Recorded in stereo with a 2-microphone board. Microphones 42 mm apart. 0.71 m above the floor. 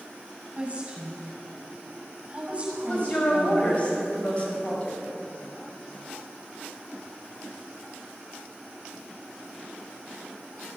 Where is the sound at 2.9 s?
30° left (ahead or behind), 4 m.